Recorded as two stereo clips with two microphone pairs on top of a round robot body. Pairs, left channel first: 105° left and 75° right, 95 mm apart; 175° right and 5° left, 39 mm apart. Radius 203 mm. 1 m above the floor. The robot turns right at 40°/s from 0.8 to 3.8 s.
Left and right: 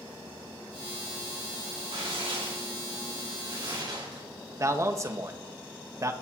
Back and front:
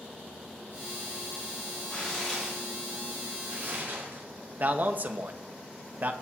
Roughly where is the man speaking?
Ahead.